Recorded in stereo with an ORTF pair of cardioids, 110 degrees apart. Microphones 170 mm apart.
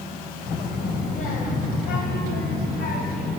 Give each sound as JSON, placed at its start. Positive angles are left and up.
{"t": 0.5, "sound": "a child speaking", "azimuth_deg": 55, "distance_m": 3.0}